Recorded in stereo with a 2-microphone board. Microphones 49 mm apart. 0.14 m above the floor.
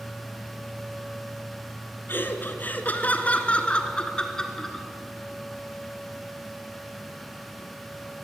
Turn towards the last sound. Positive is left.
turn(degrees=10)  # may be behind; listen again after turning